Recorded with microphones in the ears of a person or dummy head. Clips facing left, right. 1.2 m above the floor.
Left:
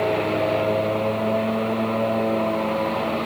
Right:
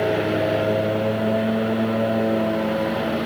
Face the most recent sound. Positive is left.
turn(degrees=-10)  # may be behind; listen again after turning